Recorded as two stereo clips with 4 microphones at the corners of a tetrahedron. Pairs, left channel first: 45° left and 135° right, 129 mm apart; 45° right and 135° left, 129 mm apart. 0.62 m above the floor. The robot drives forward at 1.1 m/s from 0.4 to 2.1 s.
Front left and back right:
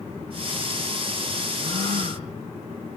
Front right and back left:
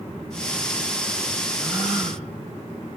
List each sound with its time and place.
1.6 s a gasp: 140° right, 5.5 m